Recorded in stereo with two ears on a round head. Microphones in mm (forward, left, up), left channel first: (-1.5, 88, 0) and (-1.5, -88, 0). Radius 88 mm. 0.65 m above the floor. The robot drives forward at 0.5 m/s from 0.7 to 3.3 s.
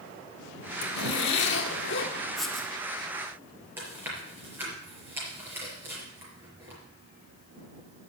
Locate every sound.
0.8 s a zipper: 55° left (ahead or behind), 1.7 m; by 2.1 s 60° left (ahead or behind), 1.6 m
2.4 s writing: centre (ahead or behind), 1.3 m
3.8 s chewing: 10° right (ahead or behind), 5.5 m